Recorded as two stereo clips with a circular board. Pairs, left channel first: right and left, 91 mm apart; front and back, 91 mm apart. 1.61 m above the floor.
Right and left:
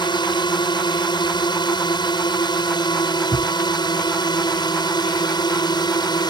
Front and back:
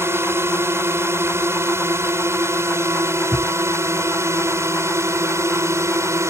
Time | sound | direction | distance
0.0 | a drone | 120° right | ?
3.3 | a thud | 25° right | ?